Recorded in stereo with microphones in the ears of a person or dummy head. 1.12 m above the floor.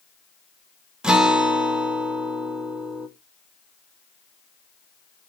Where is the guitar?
10° right (ahead or behind), 0.7 m.